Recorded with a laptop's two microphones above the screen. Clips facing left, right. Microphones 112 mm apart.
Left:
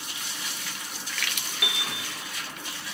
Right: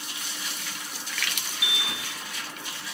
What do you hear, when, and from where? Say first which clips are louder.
1.6 s a piano: left 1 dB; 55° left (ahead or behind), 0.6 m